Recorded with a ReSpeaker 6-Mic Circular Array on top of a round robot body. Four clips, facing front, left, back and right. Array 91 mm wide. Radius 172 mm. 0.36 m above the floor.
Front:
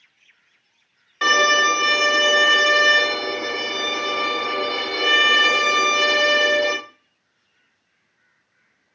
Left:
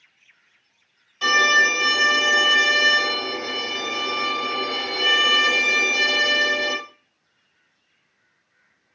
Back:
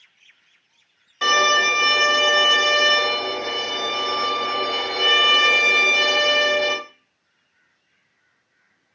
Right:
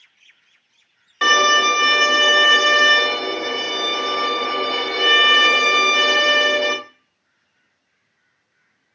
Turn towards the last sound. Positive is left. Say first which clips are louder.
# right 3 dB, front 1 dB
turn(degrees=-70)